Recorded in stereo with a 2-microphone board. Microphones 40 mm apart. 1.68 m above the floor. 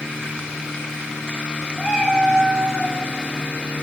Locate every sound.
1.8 s a cat meowing: 15° left (ahead or behind), 2 m; by 3.0 s 5° right (ahead or behind), 2.0 m